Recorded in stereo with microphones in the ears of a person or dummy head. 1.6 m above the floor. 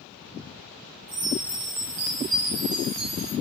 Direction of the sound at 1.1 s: 40° right (ahead or behind).